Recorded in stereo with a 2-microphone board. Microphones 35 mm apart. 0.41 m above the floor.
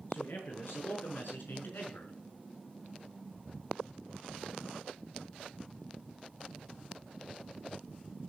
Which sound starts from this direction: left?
A man speaking, at 0.1 s.